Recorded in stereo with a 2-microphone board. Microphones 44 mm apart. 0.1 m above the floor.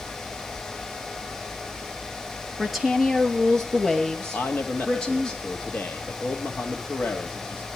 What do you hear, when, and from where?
2.6 s a woman speaking: 5° right (ahead or behind), 1.9 m; by 5.3 s 20° left (ahead or behind), 3.5 m
4.3 s a man speaking: 50° left (ahead or behind), 1.9 m